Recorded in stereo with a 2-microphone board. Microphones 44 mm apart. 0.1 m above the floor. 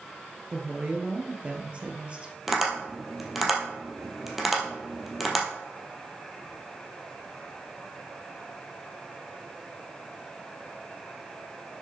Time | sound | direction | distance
0.5 | a woman speaking | 25° right (ahead or behind) | 2 m
2.5 | tapping | centre (ahead or behind) | 2.5 m